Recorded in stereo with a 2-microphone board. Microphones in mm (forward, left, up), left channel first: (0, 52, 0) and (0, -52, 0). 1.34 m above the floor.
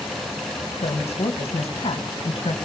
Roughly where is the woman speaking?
Left.